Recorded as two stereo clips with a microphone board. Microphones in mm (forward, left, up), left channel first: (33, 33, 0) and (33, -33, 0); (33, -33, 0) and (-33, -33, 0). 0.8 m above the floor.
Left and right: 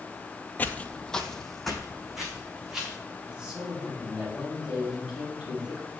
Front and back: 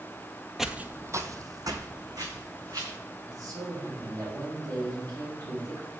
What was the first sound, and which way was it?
Footsteps, 95° left.